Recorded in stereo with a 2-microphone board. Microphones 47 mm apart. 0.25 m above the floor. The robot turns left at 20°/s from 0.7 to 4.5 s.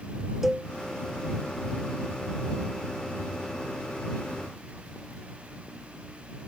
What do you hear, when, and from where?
0.4 s a cowbell: 5° right (ahead or behind)